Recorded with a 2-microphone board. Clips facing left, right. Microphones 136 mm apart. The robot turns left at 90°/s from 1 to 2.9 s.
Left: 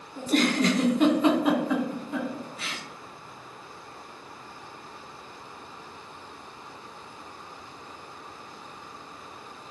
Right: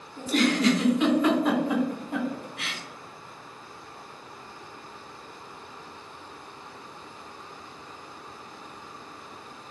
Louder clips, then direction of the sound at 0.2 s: Even; 45° left (ahead or behind).